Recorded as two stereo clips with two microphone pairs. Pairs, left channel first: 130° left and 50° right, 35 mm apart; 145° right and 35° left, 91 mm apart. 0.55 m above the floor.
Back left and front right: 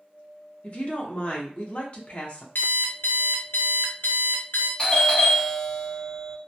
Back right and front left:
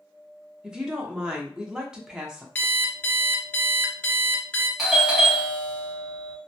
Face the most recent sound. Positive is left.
turn(degrees=120)